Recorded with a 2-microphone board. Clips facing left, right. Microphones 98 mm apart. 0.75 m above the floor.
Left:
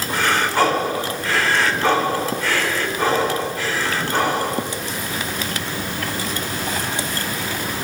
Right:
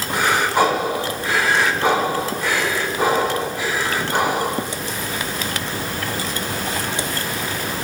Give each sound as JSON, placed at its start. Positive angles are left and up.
{"t": 0.1, "sound": "breathing", "side_deg": -15, "distance_m": 1.4}